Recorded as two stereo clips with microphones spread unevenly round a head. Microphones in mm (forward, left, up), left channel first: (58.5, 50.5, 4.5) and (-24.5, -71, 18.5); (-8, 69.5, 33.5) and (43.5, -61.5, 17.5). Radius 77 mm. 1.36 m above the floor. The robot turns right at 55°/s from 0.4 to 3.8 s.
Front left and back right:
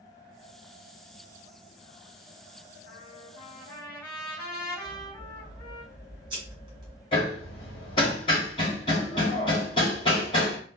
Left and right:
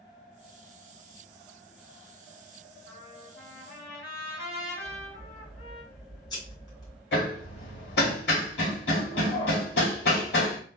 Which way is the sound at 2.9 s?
80° left.